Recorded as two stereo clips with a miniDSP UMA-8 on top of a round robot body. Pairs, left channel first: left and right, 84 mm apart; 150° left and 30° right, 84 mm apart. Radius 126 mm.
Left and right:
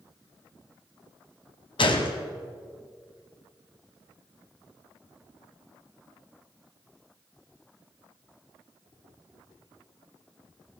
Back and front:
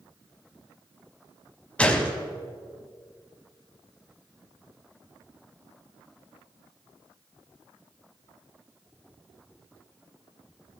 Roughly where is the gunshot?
Left.